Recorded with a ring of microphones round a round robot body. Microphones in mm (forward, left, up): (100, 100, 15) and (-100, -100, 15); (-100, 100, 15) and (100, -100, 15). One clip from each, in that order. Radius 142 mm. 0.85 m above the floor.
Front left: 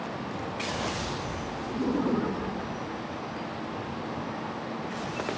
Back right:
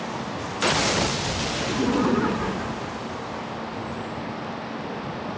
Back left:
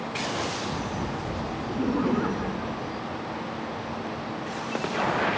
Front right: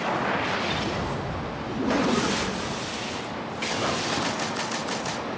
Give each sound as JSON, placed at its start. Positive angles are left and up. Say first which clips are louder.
{"t": 1.7, "sound": "laughter", "louder": "back right 4 dB, front right 3 dB", "azimuth_deg": -120}